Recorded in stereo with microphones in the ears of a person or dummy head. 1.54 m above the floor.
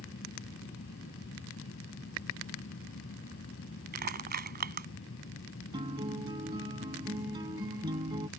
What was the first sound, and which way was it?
A fan, 65° left (ahead or behind).